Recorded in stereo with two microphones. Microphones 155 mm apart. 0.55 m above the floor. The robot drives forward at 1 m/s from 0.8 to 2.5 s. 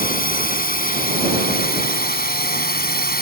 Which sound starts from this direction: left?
A drone, at 0.0 s.